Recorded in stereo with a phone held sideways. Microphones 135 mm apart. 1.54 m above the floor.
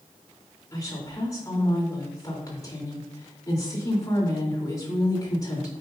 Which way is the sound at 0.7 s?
25° left (ahead or behind).